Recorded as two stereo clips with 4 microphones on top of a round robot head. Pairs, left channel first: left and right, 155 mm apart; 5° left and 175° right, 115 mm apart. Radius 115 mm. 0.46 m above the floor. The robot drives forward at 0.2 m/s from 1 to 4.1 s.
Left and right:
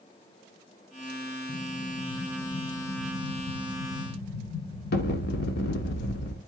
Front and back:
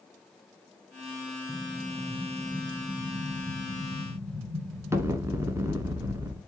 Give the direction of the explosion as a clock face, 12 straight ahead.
9 o'clock.